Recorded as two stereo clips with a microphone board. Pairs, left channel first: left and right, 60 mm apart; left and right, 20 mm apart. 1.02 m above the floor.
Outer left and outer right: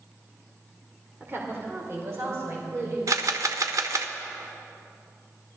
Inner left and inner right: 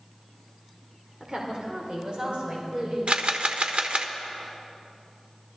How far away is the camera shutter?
About 1.2 m.